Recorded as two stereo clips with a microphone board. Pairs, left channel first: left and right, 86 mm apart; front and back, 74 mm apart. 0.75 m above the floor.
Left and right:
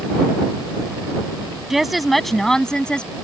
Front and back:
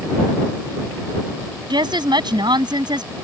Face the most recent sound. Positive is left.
turn(degrees=165)